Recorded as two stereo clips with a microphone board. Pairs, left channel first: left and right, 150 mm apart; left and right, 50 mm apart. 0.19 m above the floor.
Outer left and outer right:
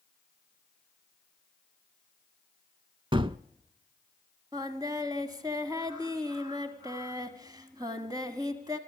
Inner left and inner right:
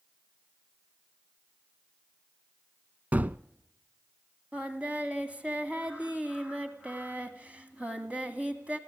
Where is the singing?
25° right (ahead or behind), 1.7 m.